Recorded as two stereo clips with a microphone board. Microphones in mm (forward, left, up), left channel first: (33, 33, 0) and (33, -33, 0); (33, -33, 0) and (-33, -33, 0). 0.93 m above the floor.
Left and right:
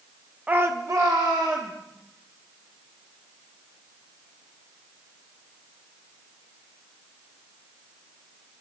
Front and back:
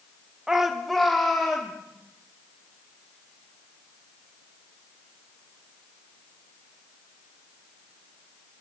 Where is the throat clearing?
I don't hear throat clearing.